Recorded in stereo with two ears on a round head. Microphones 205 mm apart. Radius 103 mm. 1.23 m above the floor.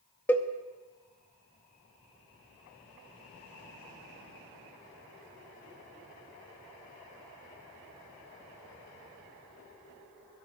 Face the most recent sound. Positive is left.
turn(degrees=10)  # may be behind; listen again after turning